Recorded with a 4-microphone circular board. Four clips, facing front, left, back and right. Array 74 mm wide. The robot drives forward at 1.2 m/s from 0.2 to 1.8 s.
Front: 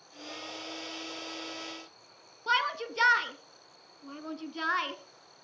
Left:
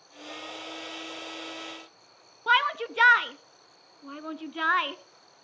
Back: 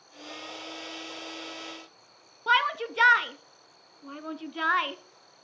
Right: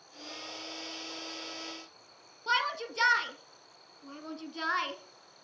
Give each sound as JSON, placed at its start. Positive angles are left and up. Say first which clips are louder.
{"t": 2.5, "sound": "a shout", "louder": "left 7 dB, back 5 dB", "azimuth_deg": 125, "distance_m": 1.2}